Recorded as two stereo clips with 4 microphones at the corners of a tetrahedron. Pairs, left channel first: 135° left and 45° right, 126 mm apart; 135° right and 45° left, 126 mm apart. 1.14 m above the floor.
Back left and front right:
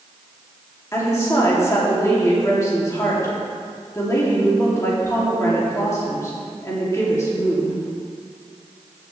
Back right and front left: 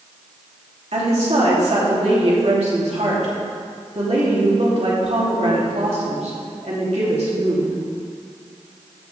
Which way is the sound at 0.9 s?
70° left.